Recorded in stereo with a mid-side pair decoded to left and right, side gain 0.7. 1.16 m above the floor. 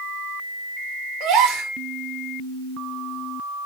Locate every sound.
1.2 s a gasp: 60° right, 1.6 m